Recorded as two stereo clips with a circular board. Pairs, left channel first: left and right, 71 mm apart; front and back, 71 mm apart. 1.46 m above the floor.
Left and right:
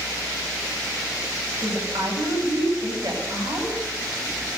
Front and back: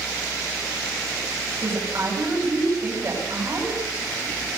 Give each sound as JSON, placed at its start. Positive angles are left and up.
{"t": 1.6, "sound": "a woman speaking", "azimuth_deg": -130, "distance_m": 9.5}